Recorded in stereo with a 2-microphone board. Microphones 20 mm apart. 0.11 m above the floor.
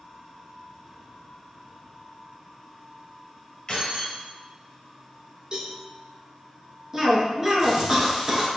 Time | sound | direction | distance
3.7 | keys jangling | 30° left (ahead or behind) | 1.9 m
5.5 | a cowbell | 40° right (ahead or behind) | 1.6 m
6.9 | a cough | 25° right (ahead or behind) | 1.2 m